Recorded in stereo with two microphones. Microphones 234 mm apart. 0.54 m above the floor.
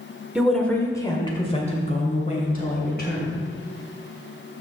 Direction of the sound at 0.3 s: 5° right (ahead or behind).